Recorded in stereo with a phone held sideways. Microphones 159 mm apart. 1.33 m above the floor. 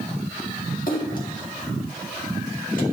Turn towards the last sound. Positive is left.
turn(degrees=60)  # may be behind; listen again after turning